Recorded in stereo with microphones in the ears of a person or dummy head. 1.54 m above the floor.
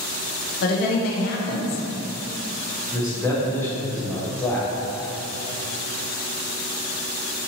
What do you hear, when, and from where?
0.6 s a woman speaking: 45° left (ahead or behind), 0.5 m
2.9 s a man speaking: 10° left (ahead or behind), 0.7 m